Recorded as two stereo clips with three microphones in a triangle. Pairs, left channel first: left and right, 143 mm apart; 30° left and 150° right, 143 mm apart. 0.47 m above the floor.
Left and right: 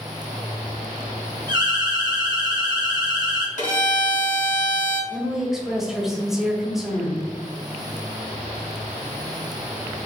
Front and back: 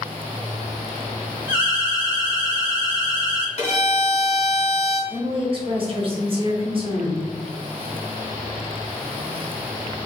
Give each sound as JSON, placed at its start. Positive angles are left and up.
{"t": 1.5, "sound": "an alarm", "azimuth_deg": -85, "distance_m": 1.6}
{"t": 3.6, "sound": "a violin", "azimuth_deg": 70, "distance_m": 1.9}
{"t": 5.1, "sound": "a woman speaking", "azimuth_deg": -175, "distance_m": 1.3}